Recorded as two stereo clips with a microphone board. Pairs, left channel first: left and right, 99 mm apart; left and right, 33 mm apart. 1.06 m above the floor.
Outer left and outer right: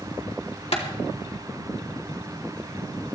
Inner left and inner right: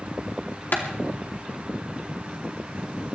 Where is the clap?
70° left (ahead or behind), 2.5 m.